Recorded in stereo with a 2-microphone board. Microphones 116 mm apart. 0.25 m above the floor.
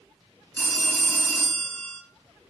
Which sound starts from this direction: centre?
A phone ringing, at 0.6 s.